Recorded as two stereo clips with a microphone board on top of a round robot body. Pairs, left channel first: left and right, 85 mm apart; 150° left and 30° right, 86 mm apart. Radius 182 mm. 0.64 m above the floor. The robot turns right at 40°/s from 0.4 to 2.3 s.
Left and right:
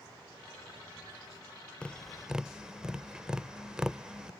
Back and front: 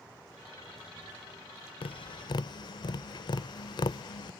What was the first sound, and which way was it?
Tapping, 170° left.